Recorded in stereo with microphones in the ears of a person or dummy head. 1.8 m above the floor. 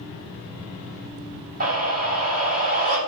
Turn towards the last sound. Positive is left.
turn(degrees=-40)  # may be behind; listen again after turning